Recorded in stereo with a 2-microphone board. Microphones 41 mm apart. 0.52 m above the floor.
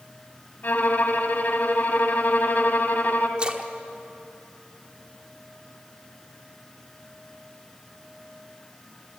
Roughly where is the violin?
Left.